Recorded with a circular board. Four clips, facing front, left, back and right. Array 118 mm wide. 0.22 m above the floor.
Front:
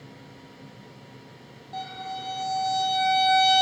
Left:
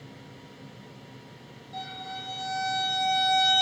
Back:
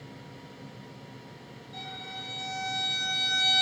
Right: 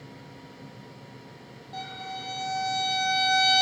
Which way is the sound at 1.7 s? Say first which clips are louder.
Right 1 dB, front 9 dB; 35° right.